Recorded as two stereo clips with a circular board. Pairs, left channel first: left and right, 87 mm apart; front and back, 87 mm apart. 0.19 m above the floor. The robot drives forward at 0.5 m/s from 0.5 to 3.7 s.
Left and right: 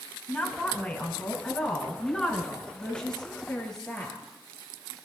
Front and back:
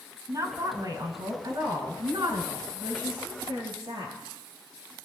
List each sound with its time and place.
0.3 s a woman speaking: 175° left, 1.3 m; by 4.2 s straight behind, 2.5 m